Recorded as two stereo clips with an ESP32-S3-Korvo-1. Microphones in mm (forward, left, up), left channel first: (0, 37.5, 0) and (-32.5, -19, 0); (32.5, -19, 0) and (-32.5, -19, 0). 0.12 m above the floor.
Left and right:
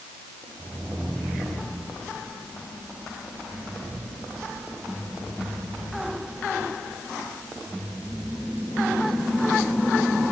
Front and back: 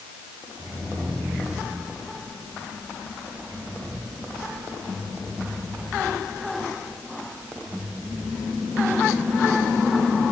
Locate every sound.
Only background noise.